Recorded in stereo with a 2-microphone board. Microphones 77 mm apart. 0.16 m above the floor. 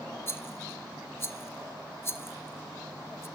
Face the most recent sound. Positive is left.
turn(degrees=30)  # may be behind; listen again after turning